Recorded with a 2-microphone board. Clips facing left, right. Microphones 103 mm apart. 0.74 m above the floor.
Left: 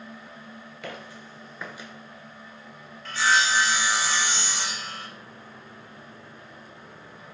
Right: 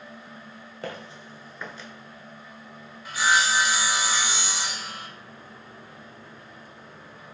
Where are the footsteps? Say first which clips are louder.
Right 3 dB; 35° right (ahead or behind), 0.8 m; by 1.9 s 20° left (ahead or behind), 0.7 m.